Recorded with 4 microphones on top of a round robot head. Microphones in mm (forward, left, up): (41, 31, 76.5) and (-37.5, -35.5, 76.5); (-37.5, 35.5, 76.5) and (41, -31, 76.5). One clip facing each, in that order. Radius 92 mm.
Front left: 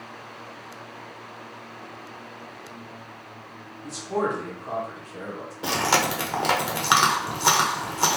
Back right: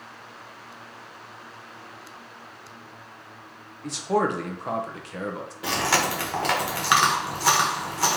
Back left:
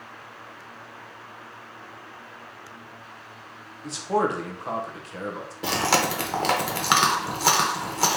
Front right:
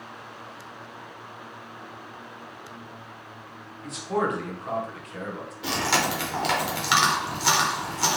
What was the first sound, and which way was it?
A man speaking, 160° right.